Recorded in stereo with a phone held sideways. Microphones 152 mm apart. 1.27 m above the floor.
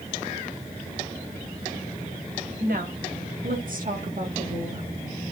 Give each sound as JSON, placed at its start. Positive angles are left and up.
{"t": 2.6, "sound": "a woman speaking", "side_deg": -80, "distance_m": 2.5}